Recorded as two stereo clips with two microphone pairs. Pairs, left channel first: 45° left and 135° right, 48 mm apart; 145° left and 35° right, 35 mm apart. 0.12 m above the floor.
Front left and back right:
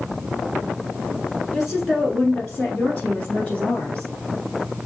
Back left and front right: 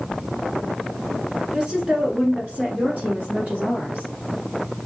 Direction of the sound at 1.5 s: 50° right.